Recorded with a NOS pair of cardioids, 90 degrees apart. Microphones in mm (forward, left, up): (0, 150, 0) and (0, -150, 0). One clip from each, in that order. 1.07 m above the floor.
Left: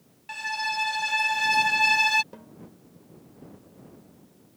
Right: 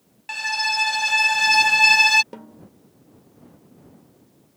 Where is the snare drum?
45° right.